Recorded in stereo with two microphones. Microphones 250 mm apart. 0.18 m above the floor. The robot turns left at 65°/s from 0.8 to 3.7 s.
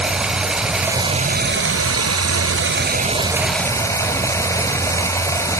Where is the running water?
5° right, 1.0 m; by 5.6 s 170° left, 1.0 m.